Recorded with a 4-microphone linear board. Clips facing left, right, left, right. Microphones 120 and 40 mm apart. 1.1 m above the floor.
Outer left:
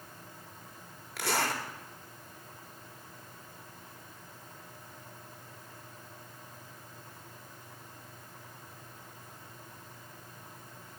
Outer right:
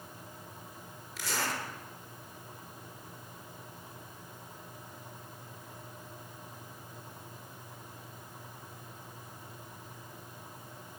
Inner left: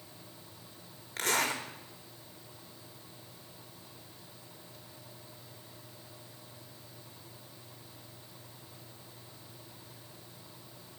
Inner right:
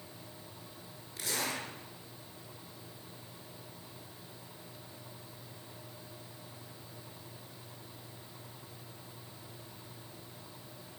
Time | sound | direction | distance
1.2 | a zipper | 65° left (ahead or behind) | 1.3 m